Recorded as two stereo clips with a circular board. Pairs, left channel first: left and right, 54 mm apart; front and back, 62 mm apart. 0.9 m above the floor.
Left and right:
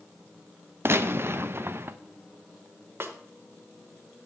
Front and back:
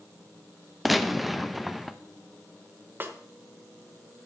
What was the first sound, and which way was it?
A gunshot, 95° right.